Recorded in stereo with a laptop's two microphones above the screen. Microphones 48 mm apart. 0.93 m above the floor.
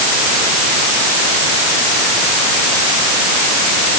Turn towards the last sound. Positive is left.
No sound to turn to.